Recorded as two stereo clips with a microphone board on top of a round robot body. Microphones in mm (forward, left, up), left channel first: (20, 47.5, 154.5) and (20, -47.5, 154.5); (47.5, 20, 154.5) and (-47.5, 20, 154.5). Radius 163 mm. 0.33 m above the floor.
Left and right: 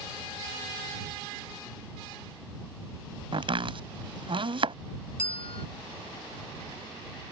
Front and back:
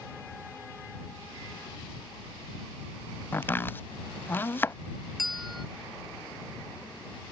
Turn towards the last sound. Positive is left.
turn(degrees=90)